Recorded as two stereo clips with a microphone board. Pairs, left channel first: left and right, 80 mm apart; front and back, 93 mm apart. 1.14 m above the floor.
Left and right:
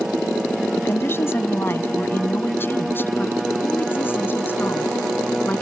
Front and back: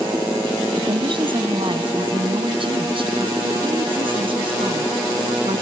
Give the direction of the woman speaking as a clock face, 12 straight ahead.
7 o'clock.